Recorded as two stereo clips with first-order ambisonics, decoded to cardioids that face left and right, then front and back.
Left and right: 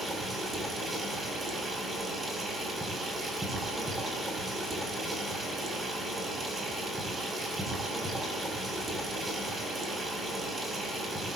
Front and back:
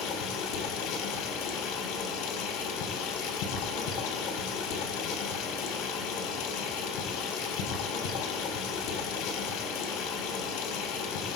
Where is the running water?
10° right, 4.5 m.